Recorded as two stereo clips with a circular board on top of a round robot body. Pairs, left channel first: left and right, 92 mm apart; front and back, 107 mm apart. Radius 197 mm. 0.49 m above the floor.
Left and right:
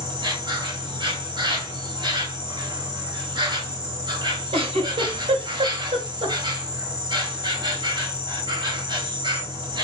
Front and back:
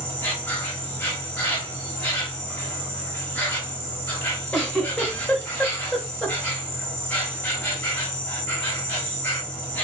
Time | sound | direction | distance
0.0 | an insect | 70° right | 2 m
4.5 | a giggle | 80° right | 1.8 m